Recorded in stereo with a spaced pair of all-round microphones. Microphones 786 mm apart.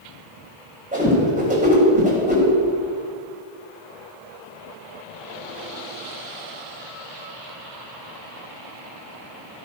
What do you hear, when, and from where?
0.9 s a whoosh: 10° right (ahead or behind), 4.5 m